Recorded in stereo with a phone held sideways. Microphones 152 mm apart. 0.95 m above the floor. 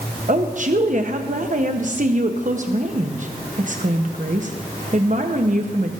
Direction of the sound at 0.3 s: 55° right (ahead or behind).